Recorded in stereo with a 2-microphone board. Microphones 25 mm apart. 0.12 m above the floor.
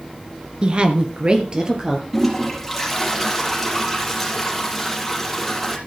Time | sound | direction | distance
0.6 | a woman speaking | 40° right (ahead or behind) | 1.6 m
2.1 | a toilet flushing | 5° left (ahead or behind) | 3.5 m